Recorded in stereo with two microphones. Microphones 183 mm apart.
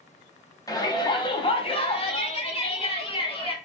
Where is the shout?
20° left (ahead or behind), 1.2 m; by 3.5 s 30° left (ahead or behind), 1.8 m.